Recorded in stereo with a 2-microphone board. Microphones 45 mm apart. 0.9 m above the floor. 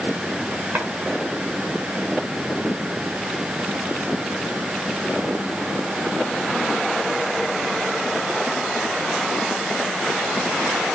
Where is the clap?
50° right (ahead or behind), 6.5 m.